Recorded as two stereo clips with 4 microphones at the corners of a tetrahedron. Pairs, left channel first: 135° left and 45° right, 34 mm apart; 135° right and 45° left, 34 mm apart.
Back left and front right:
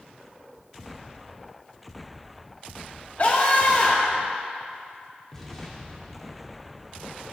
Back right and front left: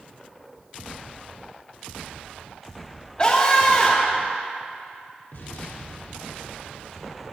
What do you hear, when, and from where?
3.2 s a scream: 170° left, 1.1 m
5.3 s an explosion: 145° right, 2 m